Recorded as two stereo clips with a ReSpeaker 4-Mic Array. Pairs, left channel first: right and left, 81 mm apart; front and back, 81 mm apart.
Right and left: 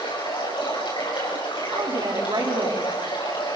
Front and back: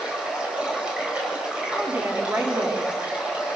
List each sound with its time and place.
0.0 s running water: 100° right, 7.5 m
1.7 s a woman speaking: 115° left, 4.5 m